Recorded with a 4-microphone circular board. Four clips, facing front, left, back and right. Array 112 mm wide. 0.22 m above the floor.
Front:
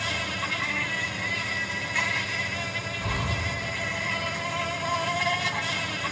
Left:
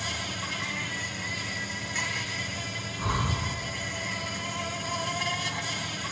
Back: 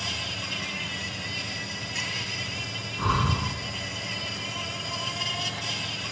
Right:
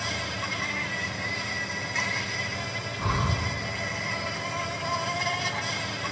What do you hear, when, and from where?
0.0 s an insect: 15° right, 1.8 m
3.0 s breathing: 165° right, 1.7 m